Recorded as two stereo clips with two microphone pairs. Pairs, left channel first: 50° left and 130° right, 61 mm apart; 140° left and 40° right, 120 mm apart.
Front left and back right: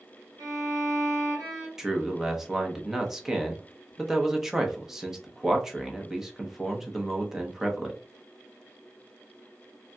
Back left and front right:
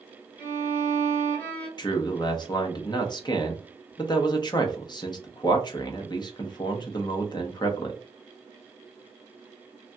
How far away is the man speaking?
About 0.7 m.